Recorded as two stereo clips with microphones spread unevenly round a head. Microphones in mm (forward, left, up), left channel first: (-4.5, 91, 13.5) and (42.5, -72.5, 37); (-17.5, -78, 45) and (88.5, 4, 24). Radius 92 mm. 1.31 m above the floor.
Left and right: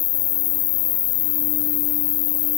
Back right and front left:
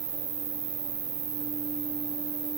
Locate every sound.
0.0 s an insect: 120° left